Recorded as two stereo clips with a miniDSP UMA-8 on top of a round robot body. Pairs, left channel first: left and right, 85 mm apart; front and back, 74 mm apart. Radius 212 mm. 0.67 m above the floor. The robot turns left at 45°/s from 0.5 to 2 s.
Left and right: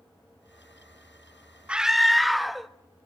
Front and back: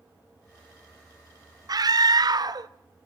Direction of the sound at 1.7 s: 165° right.